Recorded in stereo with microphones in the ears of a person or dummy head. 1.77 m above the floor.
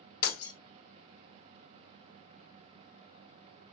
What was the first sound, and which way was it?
Breaking glass, 50° left (ahead or behind).